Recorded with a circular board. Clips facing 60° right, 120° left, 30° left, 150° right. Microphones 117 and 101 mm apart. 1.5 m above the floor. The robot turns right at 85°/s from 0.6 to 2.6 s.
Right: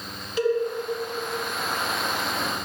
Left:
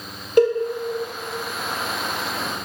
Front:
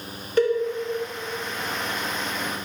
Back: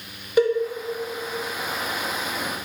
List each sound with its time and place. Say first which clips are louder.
0.4 s a cowbell: left 7 dB, back 1 dB; 135° left, 0.5 m